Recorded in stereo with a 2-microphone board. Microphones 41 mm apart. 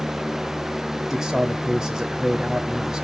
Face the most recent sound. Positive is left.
turn(degrees=-10)  # may be behind; listen again after turning